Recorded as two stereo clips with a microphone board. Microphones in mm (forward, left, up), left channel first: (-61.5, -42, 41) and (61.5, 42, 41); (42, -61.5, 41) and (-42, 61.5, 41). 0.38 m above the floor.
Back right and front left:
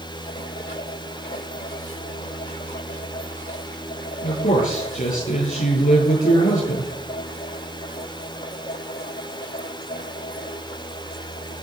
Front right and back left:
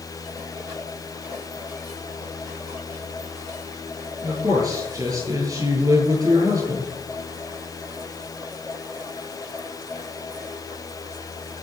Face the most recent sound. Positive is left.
turn(degrees=-170)